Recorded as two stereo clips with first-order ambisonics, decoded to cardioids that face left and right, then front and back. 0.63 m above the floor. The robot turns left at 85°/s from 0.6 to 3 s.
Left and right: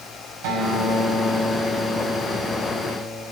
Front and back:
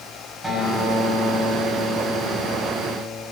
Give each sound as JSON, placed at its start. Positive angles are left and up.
{"t": 0.4, "sound": "a guitar", "azimuth_deg": -95, "distance_m": 5.0}